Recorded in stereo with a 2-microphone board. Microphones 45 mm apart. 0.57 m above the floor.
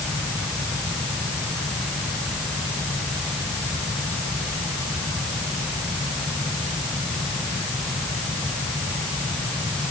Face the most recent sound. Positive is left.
No sound to turn to.